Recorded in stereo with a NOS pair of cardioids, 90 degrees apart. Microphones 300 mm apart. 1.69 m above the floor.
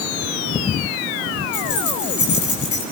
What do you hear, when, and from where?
1.5 s keys jangling: 70° left, 9.5 m; by 2.8 s 75° left, 9.5 m